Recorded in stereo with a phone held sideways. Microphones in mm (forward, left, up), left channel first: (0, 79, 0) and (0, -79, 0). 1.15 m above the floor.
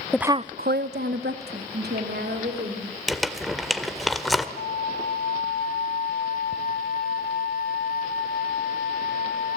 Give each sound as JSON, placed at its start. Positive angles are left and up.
{"t": 0.1, "sound": "a woman speaking", "side_deg": 5, "distance_m": 0.6}
{"t": 3.1, "sound": "crumpling", "side_deg": 0, "distance_m": 1.5}
{"t": 4.6, "sound": "a flute", "side_deg": 70, "distance_m": 1.8}